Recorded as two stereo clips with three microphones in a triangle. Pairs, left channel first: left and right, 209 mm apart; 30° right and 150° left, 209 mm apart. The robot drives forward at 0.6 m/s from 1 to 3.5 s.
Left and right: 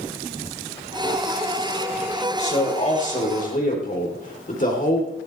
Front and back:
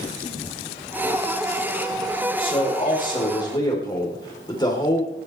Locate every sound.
2.4 s a man speaking: 35° left, 4 m; by 5.1 s 40° left, 3.5 m